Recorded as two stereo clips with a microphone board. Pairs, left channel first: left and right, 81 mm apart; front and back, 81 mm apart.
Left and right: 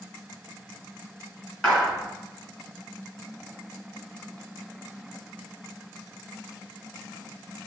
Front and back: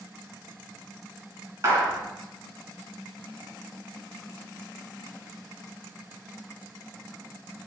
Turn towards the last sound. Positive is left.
turn(degrees=160)